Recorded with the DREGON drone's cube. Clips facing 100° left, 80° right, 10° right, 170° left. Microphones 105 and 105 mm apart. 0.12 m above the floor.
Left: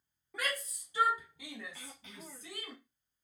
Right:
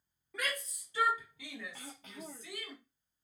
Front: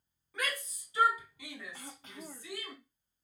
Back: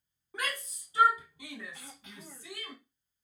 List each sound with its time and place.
0.3 s a shout: 175° right, 1.7 m; by 2.7 s 105° left, 1.8 m
1.7 s throat clearing: 55° right, 0.8 m